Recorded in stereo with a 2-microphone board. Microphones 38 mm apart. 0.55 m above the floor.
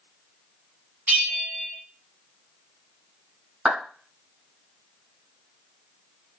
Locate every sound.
1.1 s a bell: 45° right (ahead or behind), 2.0 m
3.6 s a clap: 20° right (ahead or behind), 3 m